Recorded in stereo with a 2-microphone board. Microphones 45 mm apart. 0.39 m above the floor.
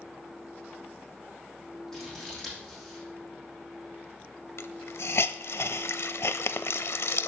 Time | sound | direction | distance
1.9 | scissors | 10° left (ahead or behind) | 7 m
4.6 | a hiss | 70° left (ahead or behind) | 0.5 m